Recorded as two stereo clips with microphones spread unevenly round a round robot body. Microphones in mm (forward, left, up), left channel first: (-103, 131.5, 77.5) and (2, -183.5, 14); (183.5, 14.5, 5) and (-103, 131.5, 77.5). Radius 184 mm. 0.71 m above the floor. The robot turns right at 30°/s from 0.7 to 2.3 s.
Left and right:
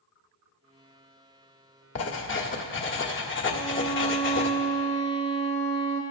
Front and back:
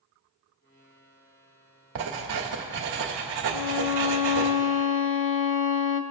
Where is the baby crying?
No baby crying in this recording.